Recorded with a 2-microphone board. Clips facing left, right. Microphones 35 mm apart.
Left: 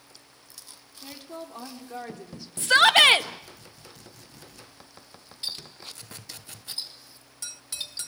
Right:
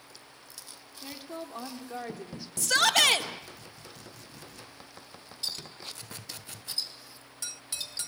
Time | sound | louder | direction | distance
1.0 | a woman speaking | even | 5° right (ahead or behind) | 2.5 m
2.6 | a shout | left 7 dB | 35° left (ahead or behind) | 1.0 m
5.4 | a clink | left 1 dB | 25° left (ahead or behind) | 4.5 m